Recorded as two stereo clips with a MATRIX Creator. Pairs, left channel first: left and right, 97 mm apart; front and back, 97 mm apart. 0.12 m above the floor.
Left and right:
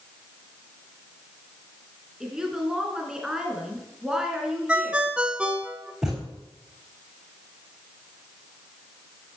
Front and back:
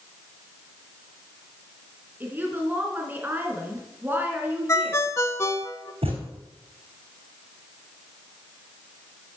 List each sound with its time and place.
2.2 s a woman speaking: 165° right, 1.8 m
4.7 s a ringtone: 20° right, 0.6 m
6.0 s a thud: 175° right, 4 m